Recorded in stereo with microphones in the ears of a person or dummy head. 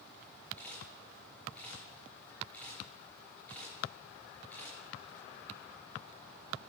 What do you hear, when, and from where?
0.6 s a camera shutter: 10° left (ahead or behind), 5 m